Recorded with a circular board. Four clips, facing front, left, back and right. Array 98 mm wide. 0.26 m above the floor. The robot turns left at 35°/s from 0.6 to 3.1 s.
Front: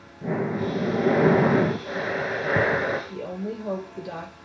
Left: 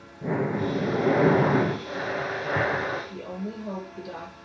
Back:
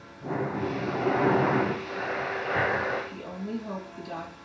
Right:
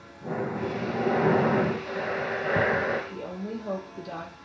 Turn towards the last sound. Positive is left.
turn(degrees=-5)